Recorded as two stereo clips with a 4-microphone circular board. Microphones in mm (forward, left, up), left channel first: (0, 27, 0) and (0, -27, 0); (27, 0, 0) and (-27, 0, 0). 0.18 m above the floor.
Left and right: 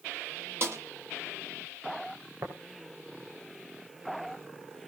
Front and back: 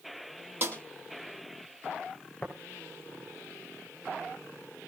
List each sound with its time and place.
0.6 s a snare drum: 130° right, 4 m
2.4 s tapping: 55° right, 8 m